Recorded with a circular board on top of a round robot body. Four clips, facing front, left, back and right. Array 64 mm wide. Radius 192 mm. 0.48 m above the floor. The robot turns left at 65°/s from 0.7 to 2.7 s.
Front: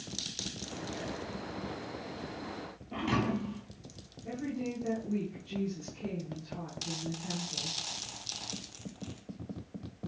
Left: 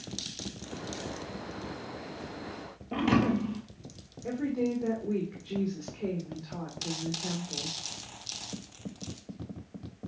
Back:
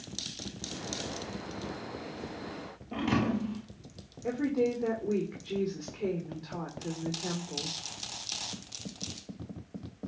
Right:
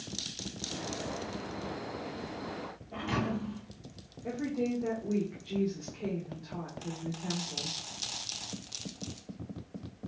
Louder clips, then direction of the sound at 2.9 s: Left 8 dB, back 2 dB; 105° left.